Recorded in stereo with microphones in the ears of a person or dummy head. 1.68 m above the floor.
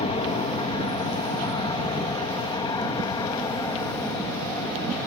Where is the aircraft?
25° left (ahead or behind); by 5.1 s 15° left (ahead or behind).